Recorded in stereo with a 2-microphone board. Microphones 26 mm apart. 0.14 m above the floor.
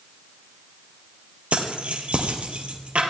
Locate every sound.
1.5 s keys jangling: 50° right (ahead or behind), 2.5 m